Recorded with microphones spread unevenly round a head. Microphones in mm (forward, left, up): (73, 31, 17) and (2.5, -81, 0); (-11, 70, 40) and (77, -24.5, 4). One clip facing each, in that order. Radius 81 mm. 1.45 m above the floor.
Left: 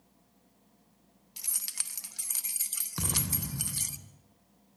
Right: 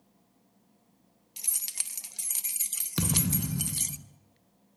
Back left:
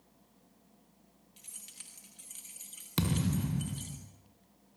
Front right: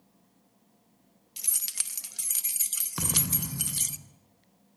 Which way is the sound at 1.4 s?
55° right.